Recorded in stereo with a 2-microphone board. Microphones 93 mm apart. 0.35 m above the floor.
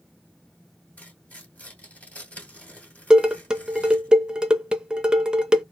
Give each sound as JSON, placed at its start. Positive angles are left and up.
{"t": 1.0, "sound": "tearing paper", "side_deg": 20, "distance_m": 2.5}
{"t": 3.1, "sound": "dishes clattering", "side_deg": -10, "distance_m": 0.6}